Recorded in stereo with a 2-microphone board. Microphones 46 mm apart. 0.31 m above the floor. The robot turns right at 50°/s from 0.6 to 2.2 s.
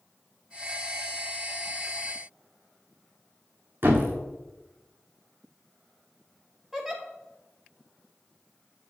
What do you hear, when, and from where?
3.8 s a thud: 50° right (ahead or behind), 1.8 m
6.7 s a giggle: 5° right (ahead or behind), 1.3 m